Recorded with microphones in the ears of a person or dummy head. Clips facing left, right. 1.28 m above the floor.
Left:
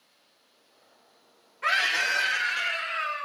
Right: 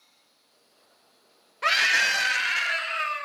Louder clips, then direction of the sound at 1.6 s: Right 2 dB; 60° right (ahead or behind).